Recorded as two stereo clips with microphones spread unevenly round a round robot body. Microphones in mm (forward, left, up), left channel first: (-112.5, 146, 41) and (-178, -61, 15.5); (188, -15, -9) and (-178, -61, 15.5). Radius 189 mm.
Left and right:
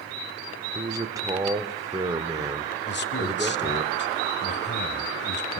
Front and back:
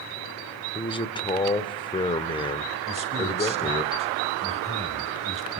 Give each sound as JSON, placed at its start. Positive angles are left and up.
{"t": 0.8, "sound": "a man speaking", "azimuth_deg": -55, "distance_m": 1.4}
{"t": 2.9, "sound": "a man speaking", "azimuth_deg": 110, "distance_m": 2.5}